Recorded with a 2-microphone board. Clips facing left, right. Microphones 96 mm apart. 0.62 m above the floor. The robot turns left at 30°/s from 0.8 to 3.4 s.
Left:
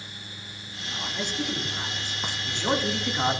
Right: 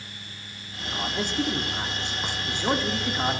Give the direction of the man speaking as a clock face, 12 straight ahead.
4 o'clock.